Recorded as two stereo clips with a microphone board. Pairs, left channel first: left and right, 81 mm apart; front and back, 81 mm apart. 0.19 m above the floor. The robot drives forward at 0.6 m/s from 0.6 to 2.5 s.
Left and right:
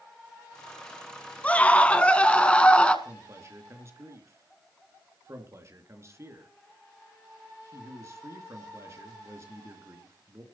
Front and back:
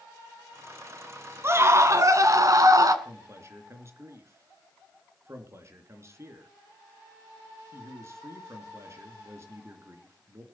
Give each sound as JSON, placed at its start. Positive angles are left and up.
{"t": 1.4, "sound": "a scream", "azimuth_deg": 150, "distance_m": 1.7}
{"t": 3.0, "sound": "a man speaking", "azimuth_deg": -135, "distance_m": 3.0}